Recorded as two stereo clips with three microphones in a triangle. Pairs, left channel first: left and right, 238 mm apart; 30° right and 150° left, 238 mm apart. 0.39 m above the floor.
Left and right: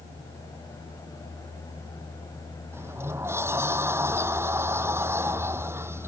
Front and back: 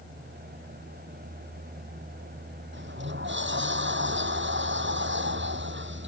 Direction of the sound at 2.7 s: 170° right.